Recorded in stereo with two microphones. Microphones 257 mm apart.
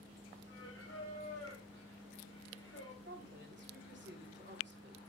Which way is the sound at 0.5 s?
55° left (ahead or behind).